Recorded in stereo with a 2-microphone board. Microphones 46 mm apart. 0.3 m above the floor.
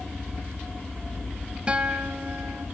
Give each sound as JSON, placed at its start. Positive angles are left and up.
{"t": 1.7, "sound": "a guitar", "side_deg": -25, "distance_m": 0.9}